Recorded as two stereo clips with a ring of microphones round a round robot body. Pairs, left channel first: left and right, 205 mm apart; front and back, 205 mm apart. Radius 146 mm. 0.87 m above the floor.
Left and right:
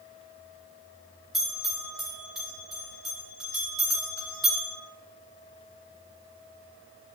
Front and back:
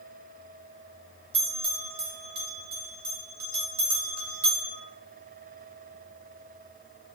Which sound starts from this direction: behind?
A bell, at 1.3 s.